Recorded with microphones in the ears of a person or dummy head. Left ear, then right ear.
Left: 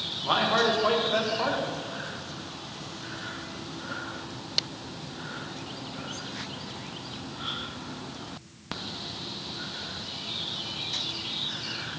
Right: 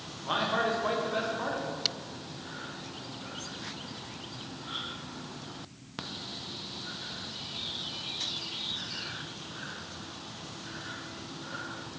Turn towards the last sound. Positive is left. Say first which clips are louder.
# left 5 dB
turn(degrees=15)  # may be behind; listen again after turning